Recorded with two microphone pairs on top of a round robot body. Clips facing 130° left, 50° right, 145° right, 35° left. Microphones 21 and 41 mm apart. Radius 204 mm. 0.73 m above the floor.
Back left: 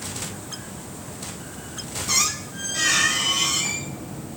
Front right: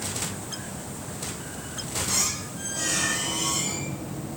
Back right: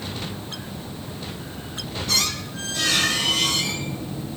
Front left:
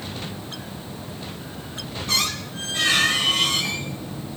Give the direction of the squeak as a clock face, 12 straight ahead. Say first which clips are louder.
Back left 7 dB, front left 1 dB; 9 o'clock.